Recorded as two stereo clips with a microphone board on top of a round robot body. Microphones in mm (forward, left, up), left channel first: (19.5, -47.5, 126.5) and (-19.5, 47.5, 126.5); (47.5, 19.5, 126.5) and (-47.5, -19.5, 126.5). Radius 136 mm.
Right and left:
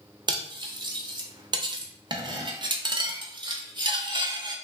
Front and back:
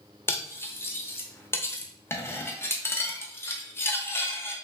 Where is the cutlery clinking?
85° left, 1.0 m.